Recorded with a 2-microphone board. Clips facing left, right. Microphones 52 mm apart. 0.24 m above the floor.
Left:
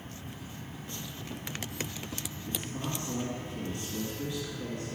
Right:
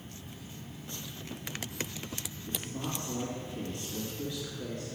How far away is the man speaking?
About 2 m.